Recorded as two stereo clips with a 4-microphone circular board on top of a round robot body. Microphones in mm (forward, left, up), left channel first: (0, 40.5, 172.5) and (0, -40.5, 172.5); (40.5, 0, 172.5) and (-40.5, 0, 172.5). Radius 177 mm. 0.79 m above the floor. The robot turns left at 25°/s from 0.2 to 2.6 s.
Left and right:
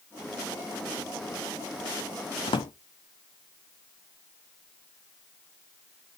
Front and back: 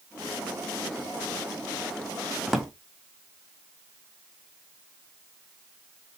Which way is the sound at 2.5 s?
95° left.